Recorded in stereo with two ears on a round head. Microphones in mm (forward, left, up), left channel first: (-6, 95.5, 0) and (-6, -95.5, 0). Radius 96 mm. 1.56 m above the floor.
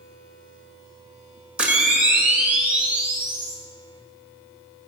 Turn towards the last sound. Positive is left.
turn(degrees=-5)  # may be behind; listen again after turning